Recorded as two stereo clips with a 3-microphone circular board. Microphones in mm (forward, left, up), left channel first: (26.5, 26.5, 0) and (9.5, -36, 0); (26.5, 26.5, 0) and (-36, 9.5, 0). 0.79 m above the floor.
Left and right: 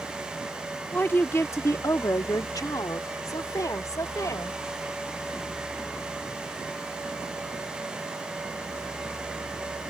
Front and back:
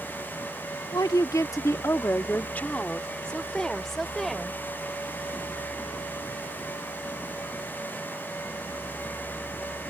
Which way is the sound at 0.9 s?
15° left.